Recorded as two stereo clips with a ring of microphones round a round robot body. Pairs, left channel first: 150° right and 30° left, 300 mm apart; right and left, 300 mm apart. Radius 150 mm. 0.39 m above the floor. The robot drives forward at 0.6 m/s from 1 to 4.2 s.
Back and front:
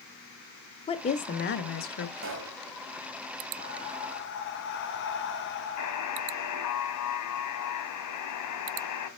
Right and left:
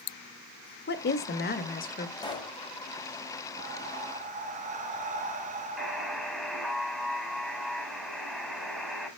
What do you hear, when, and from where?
0.9 s a woman speaking: 95° right, 1.0 m; by 2.1 s 145° right, 1.2 m
2.2 s a pop: 15° right, 2 m
3.6 s breathing: 145° left, 1.0 m; by 6.4 s 155° left, 1.3 m
5.8 s a buzzer: straight behind, 3 m